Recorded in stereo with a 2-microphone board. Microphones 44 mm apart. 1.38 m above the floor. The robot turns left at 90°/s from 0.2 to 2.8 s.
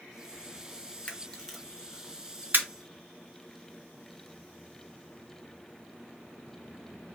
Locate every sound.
1.1 s a camera shutter: 35° left (ahead or behind), 0.6 m; by 2.6 s 50° right (ahead or behind), 0.6 m